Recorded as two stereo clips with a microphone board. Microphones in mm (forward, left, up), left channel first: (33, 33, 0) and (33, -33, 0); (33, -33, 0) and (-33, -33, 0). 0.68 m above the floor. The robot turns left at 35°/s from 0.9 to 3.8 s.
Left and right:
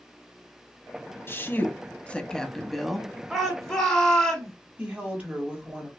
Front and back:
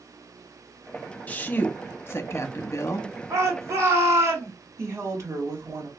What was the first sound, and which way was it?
A woman speaking, 55° left.